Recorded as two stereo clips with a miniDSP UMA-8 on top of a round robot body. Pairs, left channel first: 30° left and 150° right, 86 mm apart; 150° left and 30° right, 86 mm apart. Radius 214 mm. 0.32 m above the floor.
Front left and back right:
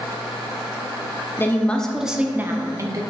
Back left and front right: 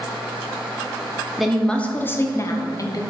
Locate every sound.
1.4 s a woman speaking: 55° left, 1.0 m; by 3.0 s 175° left, 1.3 m